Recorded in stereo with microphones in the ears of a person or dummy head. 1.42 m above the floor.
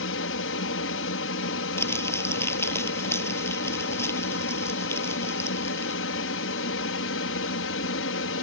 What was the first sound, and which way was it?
An aircraft, 65° left (ahead or behind).